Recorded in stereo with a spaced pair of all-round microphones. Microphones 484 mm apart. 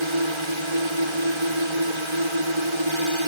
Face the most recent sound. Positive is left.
turn(degrees=-75)  # may be behind; listen again after turning